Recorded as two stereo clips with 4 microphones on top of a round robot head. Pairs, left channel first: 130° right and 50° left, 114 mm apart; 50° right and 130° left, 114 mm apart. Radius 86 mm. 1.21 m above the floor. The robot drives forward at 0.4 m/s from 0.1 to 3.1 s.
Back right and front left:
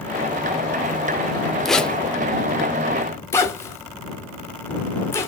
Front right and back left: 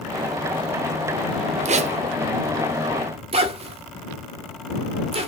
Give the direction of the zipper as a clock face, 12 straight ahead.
7 o'clock.